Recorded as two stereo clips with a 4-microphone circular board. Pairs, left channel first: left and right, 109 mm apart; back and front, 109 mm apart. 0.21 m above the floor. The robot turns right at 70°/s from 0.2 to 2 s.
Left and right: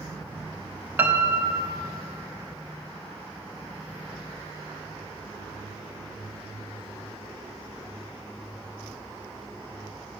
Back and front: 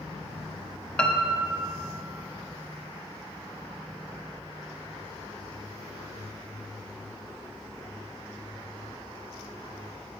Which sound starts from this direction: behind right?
A piano, at 1.0 s.